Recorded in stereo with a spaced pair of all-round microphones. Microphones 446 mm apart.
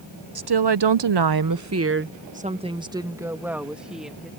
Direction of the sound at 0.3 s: 55° right (ahead or behind).